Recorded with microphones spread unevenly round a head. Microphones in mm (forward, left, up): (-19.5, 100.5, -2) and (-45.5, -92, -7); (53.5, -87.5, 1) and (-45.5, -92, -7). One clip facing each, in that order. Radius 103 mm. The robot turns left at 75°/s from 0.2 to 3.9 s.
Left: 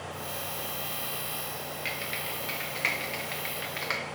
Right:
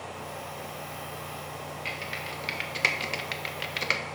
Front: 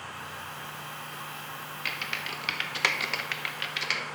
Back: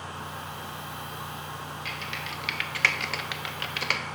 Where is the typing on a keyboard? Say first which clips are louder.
Even, back 1 dB; 10° left, 0.9 m; by 4.0 s 145° right, 0.9 m.